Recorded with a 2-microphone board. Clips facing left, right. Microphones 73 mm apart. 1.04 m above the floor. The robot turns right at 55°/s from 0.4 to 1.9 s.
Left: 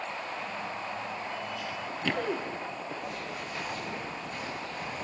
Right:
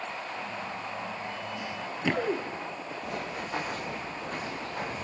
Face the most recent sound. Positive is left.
turn(degrees=-80)